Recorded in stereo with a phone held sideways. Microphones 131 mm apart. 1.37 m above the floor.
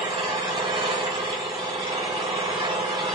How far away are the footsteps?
No footsteps in this recording.